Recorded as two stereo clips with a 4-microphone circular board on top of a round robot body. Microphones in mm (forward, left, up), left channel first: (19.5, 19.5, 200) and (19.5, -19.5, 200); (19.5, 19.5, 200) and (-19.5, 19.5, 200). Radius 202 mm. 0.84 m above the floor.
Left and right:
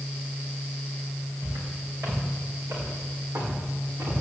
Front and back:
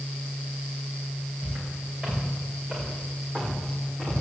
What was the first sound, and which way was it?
Footsteps, 115° right.